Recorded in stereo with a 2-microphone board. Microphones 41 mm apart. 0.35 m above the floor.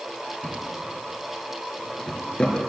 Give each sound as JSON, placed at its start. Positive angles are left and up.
{"t": 0.4, "sound": "a drawer", "side_deg": 25, "distance_m": 2.5}